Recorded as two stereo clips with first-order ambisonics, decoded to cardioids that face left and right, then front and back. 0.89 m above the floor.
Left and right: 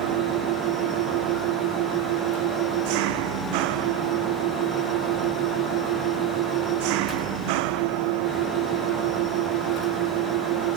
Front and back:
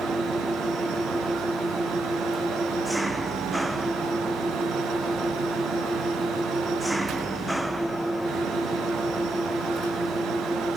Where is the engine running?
95° right.